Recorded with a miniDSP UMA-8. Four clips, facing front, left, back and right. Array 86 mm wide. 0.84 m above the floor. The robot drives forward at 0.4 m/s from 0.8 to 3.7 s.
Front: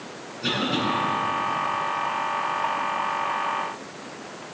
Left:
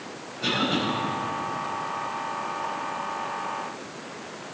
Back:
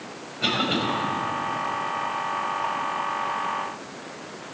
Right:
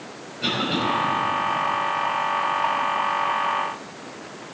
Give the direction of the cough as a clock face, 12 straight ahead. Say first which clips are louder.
Right 1 dB, back 1 dB; 5 o'clock.